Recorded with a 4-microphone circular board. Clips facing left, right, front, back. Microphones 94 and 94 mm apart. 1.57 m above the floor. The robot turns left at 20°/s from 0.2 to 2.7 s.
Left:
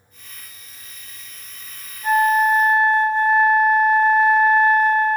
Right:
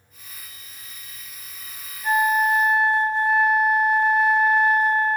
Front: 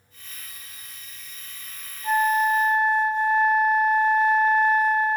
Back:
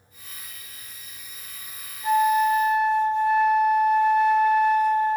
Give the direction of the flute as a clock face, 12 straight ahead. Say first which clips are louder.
Left 4 dB, back 2 dB; 6 o'clock.